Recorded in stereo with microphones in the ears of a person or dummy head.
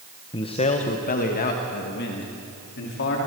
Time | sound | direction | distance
0.3 | a man speaking | 20° left (ahead or behind) | 1.2 m